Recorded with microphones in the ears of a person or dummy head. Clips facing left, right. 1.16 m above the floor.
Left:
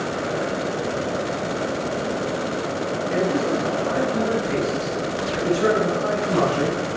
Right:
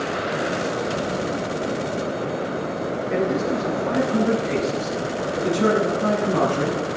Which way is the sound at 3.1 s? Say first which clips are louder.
Even; 55° right (ahead or behind).